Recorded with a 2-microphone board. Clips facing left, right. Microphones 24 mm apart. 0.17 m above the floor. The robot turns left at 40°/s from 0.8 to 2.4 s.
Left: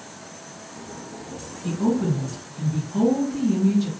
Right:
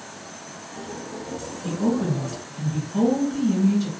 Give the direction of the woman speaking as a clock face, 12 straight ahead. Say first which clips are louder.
Left 1 dB; 12 o'clock.